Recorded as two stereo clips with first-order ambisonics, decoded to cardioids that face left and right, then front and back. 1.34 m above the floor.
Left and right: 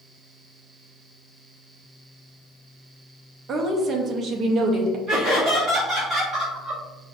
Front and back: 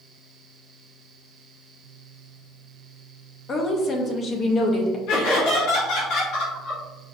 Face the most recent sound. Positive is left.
turn(degrees=-25)